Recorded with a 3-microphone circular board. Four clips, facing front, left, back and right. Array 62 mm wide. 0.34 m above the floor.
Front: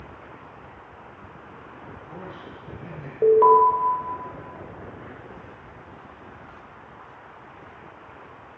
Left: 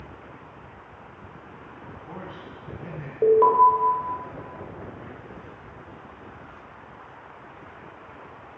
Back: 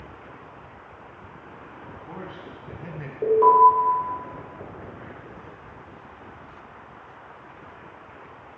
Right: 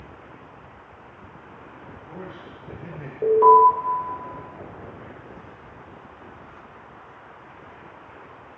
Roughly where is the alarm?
Ahead left.